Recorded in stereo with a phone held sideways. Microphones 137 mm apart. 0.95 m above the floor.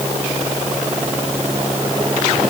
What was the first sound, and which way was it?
Only background noise.